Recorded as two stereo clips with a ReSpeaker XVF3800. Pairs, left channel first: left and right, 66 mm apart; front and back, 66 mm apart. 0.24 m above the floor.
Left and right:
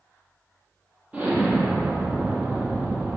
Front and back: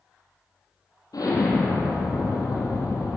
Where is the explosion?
20° right, 3.5 m.